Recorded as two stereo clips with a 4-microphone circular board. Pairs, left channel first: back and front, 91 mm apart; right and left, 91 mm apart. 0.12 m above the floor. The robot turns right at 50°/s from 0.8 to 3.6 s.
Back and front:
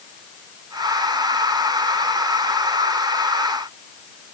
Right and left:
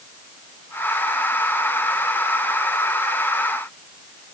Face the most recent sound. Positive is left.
No sound to turn to.